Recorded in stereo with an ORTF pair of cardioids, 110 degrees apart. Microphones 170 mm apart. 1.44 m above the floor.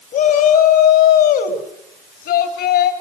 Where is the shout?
65° left, 3 m; by 2.9 s 80° left, 4 m.